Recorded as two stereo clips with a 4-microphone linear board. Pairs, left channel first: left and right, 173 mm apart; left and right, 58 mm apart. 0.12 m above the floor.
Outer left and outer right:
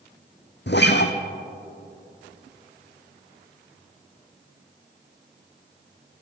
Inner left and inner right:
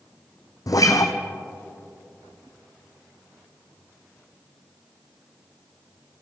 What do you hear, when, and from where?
0.7 s a guitar: 75° left (ahead or behind), 1.2 m